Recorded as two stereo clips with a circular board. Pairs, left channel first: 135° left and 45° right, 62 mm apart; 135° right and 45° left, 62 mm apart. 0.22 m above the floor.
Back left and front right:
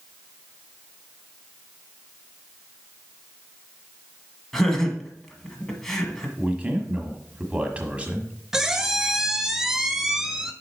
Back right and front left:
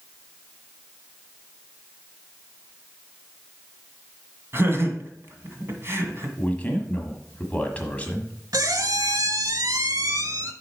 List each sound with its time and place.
4.5 s laughter: 50° left, 1.5 m
6.4 s a man speaking: 90° right, 1.3 m
8.5 s a squeak: 35° left, 0.6 m